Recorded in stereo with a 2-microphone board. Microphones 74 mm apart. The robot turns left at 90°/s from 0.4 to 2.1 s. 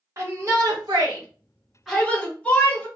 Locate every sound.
0.2 s a shout: 40° right (ahead or behind), 1.3 m; by 2.9 s 15° left (ahead or behind), 1.3 m